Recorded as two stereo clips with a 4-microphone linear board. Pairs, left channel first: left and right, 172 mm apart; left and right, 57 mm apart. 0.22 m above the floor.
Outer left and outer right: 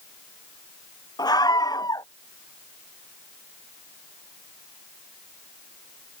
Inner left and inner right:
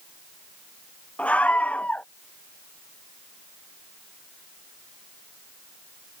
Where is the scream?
20° left (ahead or behind).